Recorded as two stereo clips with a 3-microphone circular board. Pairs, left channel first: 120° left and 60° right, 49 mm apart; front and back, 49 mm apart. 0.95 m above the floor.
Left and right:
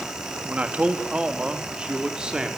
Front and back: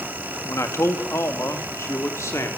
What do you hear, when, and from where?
0.5 s a man speaking: straight ahead, 1.8 m; by 2.5 s 15° left, 3 m